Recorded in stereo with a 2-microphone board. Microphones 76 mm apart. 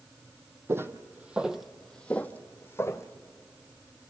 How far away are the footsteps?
About 1.1 m.